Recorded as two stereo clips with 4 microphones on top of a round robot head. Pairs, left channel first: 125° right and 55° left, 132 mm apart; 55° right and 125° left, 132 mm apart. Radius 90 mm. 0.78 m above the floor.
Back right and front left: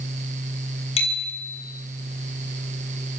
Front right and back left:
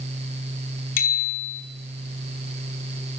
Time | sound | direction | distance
1.0 | a bicycle bell | 75° right | 5.5 m